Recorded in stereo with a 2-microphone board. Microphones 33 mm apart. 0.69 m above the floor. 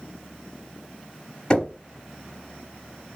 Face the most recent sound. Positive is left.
turn(degrees=25)  # may be behind; listen again after turning